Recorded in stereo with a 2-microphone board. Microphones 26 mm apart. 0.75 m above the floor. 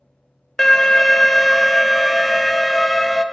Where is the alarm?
15° left (ahead or behind), 0.6 m.